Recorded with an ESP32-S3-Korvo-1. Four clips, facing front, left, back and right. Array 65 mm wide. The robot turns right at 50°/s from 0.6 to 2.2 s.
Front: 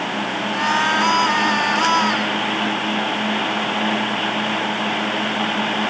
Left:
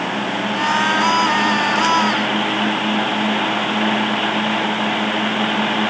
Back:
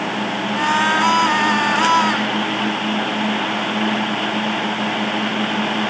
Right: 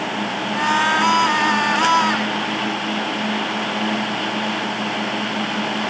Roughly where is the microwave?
I don't hear a microwave.